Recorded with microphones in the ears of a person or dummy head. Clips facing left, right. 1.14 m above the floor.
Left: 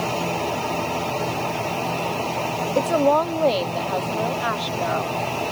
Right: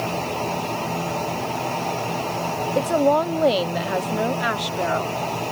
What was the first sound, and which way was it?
A woman speaking, 5° left (ahead or behind).